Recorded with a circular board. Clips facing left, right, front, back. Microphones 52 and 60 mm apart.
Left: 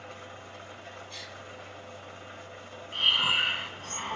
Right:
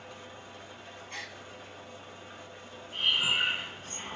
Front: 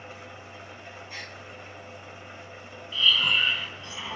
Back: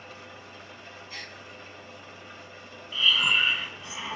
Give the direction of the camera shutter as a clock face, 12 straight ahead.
No camera shutter in this recording.